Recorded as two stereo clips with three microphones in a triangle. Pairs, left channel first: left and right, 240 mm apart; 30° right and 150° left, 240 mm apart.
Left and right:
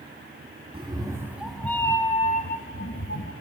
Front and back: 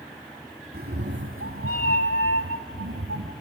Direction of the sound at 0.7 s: 155° right.